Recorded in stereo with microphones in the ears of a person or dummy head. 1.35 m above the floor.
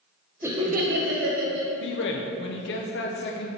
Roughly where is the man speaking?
Left.